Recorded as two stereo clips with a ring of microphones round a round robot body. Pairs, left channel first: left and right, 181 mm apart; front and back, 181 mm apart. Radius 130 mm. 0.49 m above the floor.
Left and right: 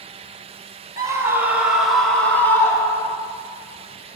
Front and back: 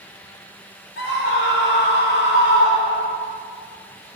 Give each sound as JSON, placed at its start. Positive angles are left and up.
{"t": 1.0, "sound": "a scream", "azimuth_deg": -20, "distance_m": 3.0}